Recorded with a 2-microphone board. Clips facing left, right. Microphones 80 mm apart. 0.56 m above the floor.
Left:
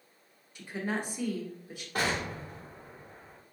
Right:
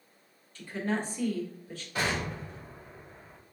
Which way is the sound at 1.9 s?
45° left (ahead or behind).